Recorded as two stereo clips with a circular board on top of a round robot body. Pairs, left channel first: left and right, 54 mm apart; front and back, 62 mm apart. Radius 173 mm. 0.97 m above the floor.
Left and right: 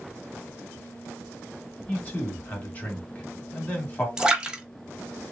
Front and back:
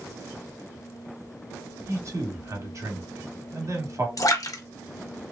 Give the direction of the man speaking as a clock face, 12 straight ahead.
7 o'clock.